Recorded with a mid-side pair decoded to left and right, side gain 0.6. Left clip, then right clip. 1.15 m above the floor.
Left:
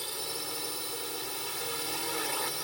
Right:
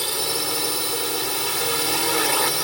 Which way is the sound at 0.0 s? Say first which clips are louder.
Right 12 dB; 55° right.